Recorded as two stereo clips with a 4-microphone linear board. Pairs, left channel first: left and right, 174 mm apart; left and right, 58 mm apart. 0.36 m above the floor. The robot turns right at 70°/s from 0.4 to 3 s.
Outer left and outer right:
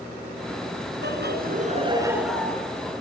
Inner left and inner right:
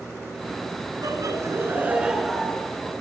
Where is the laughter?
90° right, 4 m; by 2.6 s 20° left, 4 m.